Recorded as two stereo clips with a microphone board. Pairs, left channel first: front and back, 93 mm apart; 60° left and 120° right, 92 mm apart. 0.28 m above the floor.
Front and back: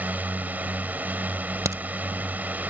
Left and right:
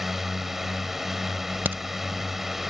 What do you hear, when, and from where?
0.0 s a drone: 160° left
1.6 s a crack: 170° right